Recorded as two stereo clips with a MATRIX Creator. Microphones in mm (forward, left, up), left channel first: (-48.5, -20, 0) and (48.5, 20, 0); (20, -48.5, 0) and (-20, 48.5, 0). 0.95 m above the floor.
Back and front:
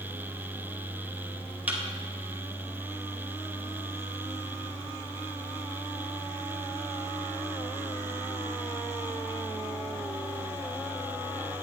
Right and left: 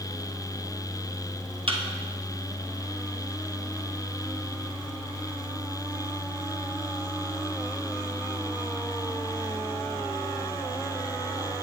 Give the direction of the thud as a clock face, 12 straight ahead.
9 o'clock.